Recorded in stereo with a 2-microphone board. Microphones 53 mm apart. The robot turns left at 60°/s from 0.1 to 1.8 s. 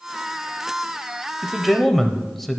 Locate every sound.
1.4 s a man speaking: 5° right (ahead or behind), 1.0 m; by 2.6 s centre (ahead or behind), 1.0 m